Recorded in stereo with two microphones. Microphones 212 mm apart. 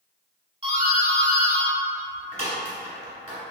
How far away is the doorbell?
About 1.7 m.